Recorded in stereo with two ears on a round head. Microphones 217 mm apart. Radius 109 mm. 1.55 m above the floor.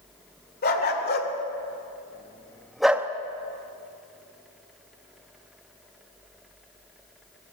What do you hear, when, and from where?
0.6 s a dog barking: 40° left (ahead or behind), 2.5 m; by 3.1 s 10° right (ahead or behind), 1.1 m